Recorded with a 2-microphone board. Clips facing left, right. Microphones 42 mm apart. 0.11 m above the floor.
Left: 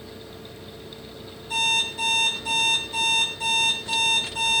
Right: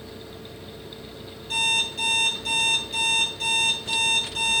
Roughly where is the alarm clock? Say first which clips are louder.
Even; right.